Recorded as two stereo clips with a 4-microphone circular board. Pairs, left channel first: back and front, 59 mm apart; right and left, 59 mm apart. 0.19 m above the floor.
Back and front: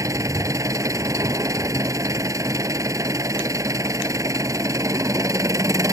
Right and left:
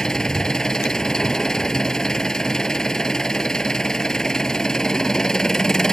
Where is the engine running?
10° right.